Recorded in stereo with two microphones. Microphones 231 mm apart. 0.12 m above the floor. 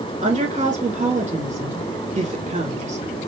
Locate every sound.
0.2 s a woman speaking: 30° right (ahead or behind), 2 m